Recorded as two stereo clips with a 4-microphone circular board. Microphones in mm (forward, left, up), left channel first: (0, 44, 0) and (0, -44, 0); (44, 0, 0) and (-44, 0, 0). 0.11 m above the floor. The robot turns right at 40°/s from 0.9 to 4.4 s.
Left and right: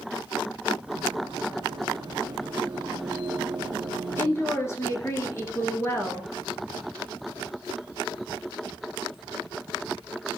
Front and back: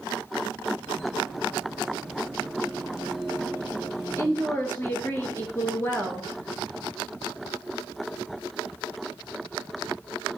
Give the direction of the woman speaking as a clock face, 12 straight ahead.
11 o'clock.